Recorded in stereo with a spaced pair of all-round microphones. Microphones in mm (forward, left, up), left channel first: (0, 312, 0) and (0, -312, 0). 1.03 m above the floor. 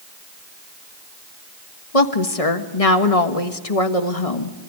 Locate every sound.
1.9 s a woman speaking: 70° left (ahead or behind), 1.7 m